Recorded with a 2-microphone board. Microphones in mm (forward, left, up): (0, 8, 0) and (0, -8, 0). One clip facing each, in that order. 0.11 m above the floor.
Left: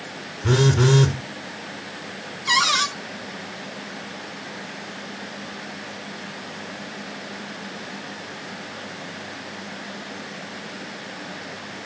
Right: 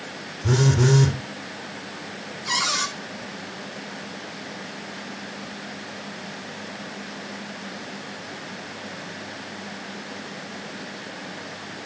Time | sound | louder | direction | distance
0.4 | a phone buzzing | left 2 dB | 30° left (ahead or behind) | 3.5 m
2.5 | a cupboard door | left 5 dB | 30° left (ahead or behind) | 1.4 m